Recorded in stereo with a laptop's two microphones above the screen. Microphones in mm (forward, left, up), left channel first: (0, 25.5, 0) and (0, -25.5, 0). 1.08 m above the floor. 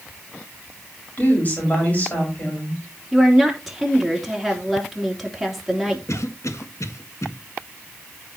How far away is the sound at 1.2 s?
About 5 m.